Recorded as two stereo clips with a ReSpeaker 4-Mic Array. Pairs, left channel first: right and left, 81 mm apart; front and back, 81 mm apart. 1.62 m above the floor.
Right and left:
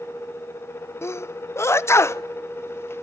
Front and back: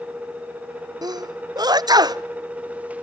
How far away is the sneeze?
About 0.7 m.